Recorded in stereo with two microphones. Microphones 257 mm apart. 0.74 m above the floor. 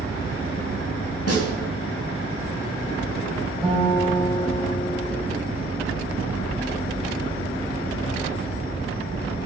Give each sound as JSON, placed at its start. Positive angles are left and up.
{"t": 0.0, "sound": "an insect", "side_deg": 35, "distance_m": 6.0}
{"t": 1.3, "sound": "a snare drum", "side_deg": 70, "distance_m": 3.5}
{"t": 3.6, "sound": "a guitar", "side_deg": 0, "distance_m": 4.0}